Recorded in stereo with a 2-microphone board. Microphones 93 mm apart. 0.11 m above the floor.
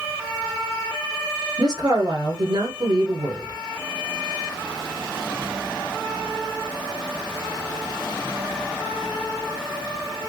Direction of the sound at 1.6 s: 55° right (ahead or behind).